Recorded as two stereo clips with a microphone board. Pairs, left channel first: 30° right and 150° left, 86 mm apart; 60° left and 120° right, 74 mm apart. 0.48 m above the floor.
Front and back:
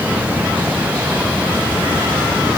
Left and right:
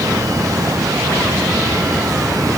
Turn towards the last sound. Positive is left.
No sound to turn to.